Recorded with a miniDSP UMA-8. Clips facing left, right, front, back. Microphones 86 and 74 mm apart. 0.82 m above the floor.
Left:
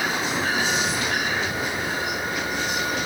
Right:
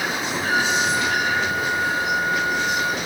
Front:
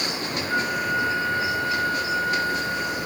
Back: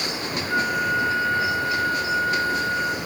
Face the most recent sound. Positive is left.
turn(degrees=-90)